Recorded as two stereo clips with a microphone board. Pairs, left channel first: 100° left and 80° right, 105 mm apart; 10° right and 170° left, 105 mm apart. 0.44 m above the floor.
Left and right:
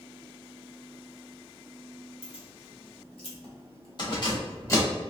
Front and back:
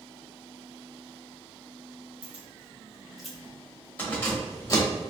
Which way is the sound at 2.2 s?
95° left.